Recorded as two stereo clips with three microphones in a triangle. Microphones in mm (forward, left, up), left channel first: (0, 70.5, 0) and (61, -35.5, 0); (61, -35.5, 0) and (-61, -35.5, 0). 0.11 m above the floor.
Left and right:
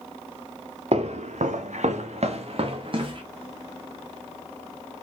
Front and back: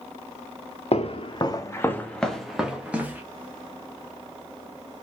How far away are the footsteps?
About 0.9 m.